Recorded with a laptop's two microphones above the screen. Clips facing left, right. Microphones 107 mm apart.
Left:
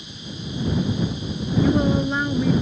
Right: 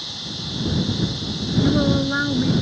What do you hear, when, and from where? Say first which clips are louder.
0.0 s running water: right 1 dB; 90° right
1.6 s a woman speaking: even; 10° right (ahead or behind)